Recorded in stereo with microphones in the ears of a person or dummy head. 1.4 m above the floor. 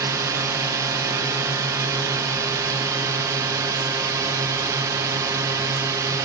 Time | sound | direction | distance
0.0 | a drone | 15° right (ahead or behind) | ?